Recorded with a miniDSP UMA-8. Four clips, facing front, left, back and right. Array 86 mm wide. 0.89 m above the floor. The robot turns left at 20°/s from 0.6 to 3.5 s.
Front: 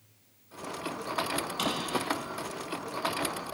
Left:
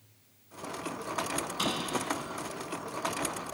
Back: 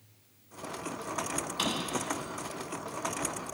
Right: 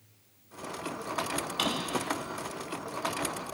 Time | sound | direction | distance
1.6 | a drawer | 80° right | 2.5 m